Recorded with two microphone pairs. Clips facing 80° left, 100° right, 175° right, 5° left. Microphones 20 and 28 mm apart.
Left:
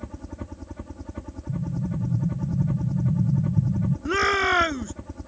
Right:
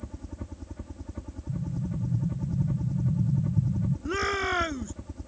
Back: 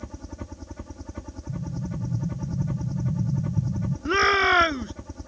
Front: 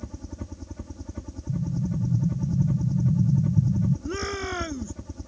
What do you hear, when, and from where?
0.0 s a helicopter: 130° left
1.5 s an explosion: 90° left
4.0 s a shout: 150° left